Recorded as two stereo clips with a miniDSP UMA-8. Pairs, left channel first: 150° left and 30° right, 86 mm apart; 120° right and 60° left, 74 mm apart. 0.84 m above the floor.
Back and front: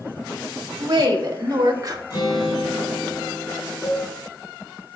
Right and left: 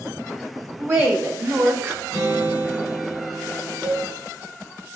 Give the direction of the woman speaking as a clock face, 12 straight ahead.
12 o'clock.